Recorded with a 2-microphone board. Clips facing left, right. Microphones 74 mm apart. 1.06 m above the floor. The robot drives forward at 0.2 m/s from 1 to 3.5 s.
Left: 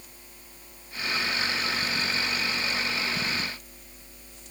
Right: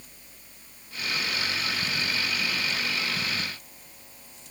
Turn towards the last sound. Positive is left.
No sound to turn to.